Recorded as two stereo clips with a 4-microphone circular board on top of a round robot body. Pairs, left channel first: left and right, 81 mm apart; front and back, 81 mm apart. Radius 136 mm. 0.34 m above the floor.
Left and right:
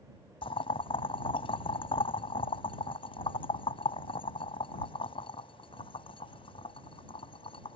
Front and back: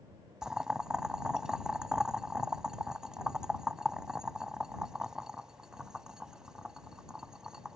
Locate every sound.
0.4 s boiling: 95° left